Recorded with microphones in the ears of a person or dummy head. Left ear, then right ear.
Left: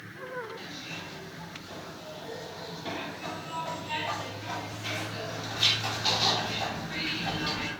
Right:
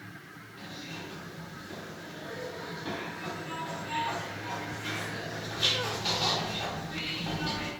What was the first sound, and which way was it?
A zipper, 20° left (ahead or behind).